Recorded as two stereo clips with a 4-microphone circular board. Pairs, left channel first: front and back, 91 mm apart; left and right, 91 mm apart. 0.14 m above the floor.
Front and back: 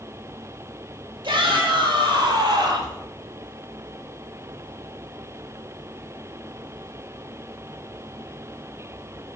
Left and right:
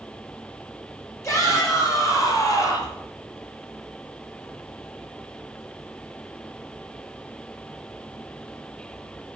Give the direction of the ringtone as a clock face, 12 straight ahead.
I don't hear a ringtone.